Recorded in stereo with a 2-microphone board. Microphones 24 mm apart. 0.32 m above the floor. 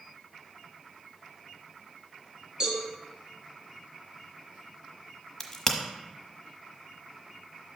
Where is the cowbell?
25° right (ahead or behind), 2.5 m.